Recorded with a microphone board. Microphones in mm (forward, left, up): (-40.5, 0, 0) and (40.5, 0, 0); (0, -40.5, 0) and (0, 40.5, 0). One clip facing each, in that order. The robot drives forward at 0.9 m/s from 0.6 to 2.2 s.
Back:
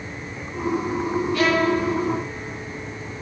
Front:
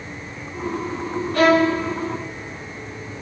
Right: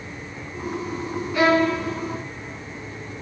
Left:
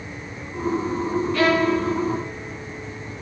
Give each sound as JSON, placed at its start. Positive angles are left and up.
{"t": 1.3, "sound": "a violin", "azimuth_deg": -20, "distance_m": 1.2}